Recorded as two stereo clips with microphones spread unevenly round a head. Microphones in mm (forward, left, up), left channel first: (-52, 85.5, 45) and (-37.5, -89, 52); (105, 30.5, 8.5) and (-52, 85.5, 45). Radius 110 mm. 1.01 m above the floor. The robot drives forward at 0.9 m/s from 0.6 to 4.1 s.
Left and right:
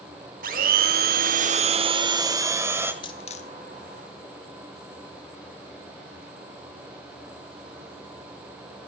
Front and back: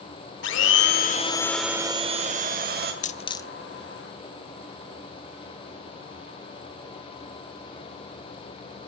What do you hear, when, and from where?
0.4 s a blender: 40° right, 0.9 m; by 2.9 s 160° right, 1.7 m
3.0 s a dropped coin: 25° left, 0.7 m; by 3.5 s 75° left, 0.5 m